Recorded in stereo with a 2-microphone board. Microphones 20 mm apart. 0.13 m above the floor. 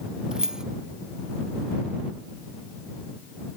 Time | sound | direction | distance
0.3 | keys jangling | 35° right (ahead or behind) | ?